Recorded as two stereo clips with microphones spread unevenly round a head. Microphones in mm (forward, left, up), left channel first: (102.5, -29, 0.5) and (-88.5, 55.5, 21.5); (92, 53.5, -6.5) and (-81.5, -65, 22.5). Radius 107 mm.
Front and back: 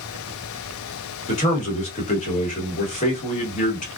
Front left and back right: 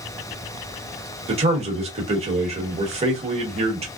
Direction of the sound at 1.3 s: 80° right.